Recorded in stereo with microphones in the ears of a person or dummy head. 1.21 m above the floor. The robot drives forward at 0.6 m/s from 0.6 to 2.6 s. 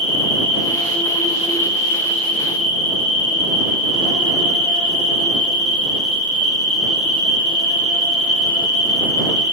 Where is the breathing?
I don't hear breathing.